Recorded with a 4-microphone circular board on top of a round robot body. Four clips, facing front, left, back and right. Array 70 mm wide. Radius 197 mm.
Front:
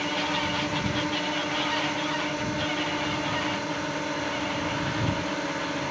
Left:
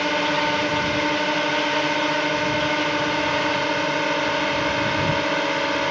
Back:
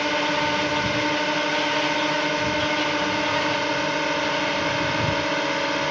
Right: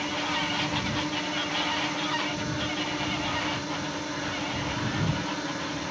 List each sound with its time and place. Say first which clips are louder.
0.0 s a drone: left 8 dB, back 5 dB; 125° left; by 5.9 s 120° left